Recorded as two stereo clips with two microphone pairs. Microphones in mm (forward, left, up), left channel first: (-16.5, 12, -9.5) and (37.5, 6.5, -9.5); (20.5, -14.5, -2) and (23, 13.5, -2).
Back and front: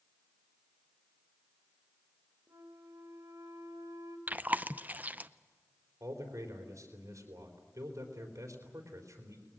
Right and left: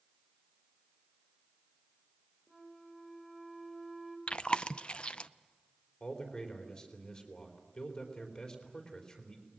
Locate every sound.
2.5 s a flute: 15° right, 3 m
4.3 s chewing: 55° right, 0.5 m
6.0 s a man speaking: 35° right, 4 m